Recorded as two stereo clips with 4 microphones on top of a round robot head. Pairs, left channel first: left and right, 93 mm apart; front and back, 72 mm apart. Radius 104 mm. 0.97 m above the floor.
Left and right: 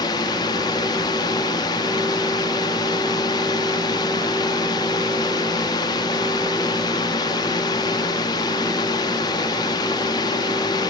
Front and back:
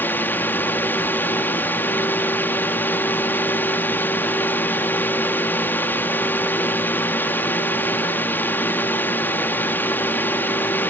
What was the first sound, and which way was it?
A drone, 60° left.